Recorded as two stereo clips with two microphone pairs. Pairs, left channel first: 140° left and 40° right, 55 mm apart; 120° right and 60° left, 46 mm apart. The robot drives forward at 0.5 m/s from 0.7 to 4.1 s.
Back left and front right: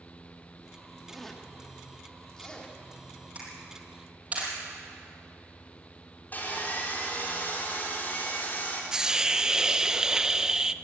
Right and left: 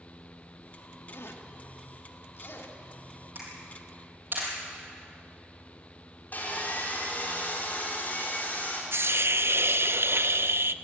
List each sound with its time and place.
1.1 s a zipper: 135° right, 1.6 m; by 2.8 s 150° right, 2.5 m
3.4 s a camera shutter: 20° left, 6.5 m
6.3 s sawing: 170° right, 4 m
8.9 s a hiss: 40° left, 0.5 m